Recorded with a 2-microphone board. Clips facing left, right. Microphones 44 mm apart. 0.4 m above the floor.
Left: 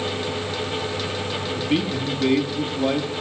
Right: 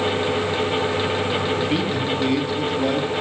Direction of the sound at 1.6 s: 5° left (ahead or behind).